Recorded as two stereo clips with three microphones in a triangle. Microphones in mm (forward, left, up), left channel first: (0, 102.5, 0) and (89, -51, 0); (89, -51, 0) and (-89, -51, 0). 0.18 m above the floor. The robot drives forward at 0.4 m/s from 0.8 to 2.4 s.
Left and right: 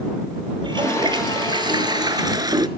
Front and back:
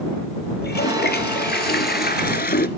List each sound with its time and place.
0.6 s a toilet flushing: 5° left, 1.5 m